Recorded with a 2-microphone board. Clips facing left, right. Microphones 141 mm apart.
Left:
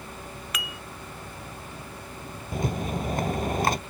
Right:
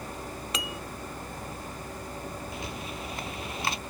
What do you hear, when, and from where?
0.5 s dishes clattering: 30° right (ahead or behind)
2.5 s a rattle: 50° left (ahead or behind)